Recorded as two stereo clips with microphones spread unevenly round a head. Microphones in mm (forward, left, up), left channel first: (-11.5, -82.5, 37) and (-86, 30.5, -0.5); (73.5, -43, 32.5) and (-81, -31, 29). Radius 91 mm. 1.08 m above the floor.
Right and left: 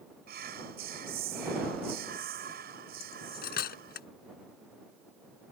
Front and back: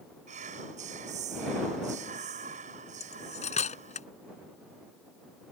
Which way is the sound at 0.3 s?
125° left.